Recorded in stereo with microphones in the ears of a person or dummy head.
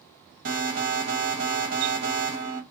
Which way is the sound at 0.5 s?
50° right (ahead or behind).